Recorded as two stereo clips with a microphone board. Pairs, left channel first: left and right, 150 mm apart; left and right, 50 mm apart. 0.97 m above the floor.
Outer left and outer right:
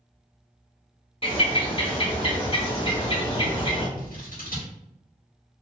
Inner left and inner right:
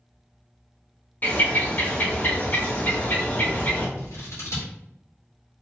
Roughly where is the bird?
Left.